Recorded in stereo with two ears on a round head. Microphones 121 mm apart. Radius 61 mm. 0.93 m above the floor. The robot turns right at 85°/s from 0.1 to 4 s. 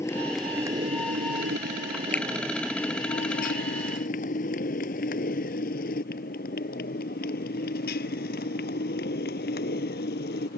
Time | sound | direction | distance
0.0 | a motorcycle | 20° left (ahead or behind) | ?
2.1 | a finger snap | 15° left (ahead or behind) | ?